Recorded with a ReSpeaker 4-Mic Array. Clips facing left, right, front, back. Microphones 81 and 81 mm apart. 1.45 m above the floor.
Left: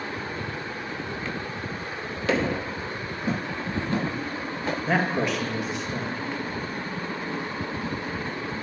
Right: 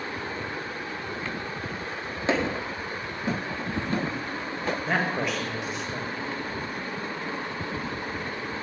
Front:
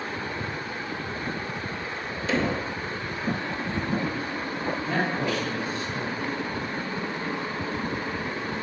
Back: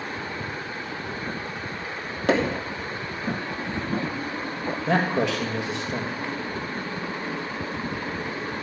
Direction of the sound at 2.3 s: 155° right.